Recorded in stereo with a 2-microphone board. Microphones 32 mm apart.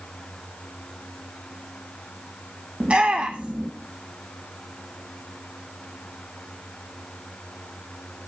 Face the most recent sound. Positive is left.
turn(degrees=-40)  # may be behind; listen again after turning